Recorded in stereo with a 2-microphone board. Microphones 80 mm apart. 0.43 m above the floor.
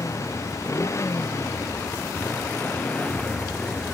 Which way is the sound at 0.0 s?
40° left (ahead or behind).